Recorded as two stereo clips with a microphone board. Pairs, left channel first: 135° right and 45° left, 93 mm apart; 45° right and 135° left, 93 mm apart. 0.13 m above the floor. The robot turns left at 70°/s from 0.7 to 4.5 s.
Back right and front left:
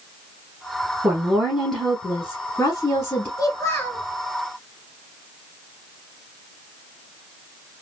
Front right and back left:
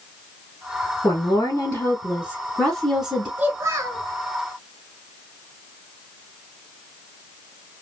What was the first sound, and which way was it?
A woman speaking, 10° right.